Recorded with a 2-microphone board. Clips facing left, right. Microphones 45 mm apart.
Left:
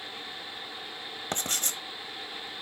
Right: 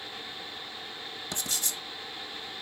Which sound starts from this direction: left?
Writing, at 1.3 s.